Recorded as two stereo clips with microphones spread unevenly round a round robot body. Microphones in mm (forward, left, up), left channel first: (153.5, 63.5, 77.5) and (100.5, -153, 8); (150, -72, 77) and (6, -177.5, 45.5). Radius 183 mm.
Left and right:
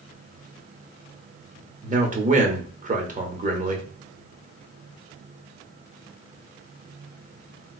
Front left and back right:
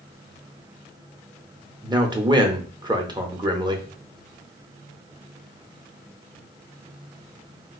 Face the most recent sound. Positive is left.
turn(degrees=-90)